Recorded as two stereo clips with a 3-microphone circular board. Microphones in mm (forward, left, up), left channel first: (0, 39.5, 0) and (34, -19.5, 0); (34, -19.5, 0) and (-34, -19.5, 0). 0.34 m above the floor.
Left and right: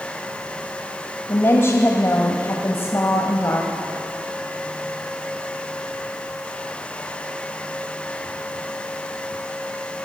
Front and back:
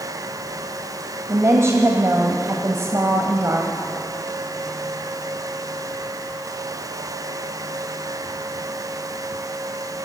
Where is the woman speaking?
155° left, 1.7 m.